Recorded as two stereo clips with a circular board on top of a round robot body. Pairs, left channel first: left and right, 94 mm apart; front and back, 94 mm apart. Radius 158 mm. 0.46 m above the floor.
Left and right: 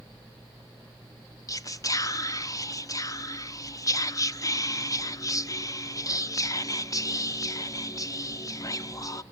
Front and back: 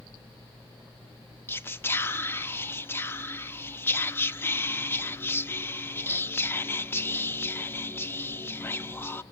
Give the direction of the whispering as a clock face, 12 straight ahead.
10 o'clock.